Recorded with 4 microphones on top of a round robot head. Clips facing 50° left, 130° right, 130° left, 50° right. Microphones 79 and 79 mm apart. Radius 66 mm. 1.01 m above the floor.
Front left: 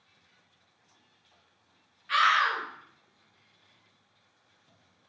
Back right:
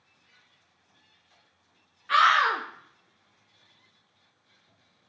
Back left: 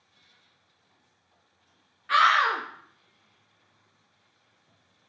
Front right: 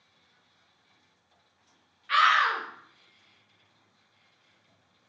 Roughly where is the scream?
Behind.